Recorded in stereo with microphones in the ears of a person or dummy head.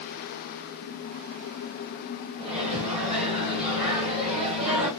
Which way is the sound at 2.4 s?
30° right (ahead or behind).